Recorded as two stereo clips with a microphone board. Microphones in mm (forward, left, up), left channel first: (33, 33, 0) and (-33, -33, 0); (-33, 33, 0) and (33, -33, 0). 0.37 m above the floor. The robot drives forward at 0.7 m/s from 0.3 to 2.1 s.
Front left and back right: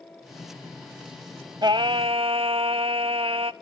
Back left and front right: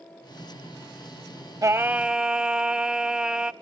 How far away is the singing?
About 0.5 m.